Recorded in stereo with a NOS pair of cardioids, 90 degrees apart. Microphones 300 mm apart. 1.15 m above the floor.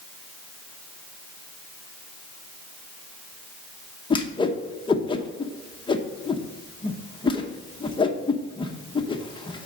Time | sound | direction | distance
4.1 | a whoosh | 15° left | 0.9 m